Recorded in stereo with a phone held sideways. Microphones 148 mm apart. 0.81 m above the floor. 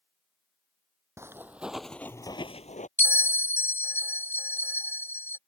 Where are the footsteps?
20° right (ahead or behind); by 2.9 s 60° left (ahead or behind).